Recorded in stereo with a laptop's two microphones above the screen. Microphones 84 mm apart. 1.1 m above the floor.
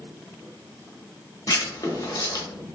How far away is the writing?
About 0.8 m.